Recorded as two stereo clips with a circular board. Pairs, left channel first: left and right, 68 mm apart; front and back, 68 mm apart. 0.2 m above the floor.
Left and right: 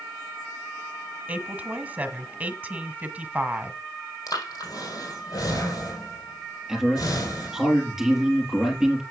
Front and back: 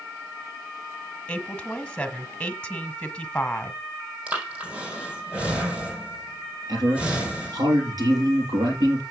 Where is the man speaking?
175° right, 4.5 m.